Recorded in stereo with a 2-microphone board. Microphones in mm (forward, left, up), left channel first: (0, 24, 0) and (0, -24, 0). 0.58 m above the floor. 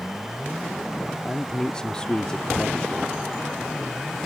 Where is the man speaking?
20° left (ahead or behind).